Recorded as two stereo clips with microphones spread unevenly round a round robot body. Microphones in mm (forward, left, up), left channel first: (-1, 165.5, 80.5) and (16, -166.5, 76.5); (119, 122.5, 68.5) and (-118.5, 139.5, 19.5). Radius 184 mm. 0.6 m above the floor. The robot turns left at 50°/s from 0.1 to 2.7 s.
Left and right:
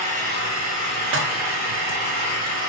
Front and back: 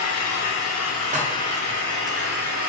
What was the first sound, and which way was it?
An engine running, 15° right.